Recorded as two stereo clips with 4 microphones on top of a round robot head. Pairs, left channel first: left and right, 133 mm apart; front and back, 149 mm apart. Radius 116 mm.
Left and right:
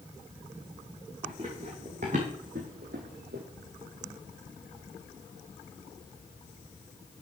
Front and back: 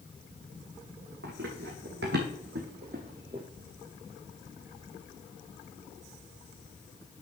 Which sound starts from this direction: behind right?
Running footsteps, at 1.2 s.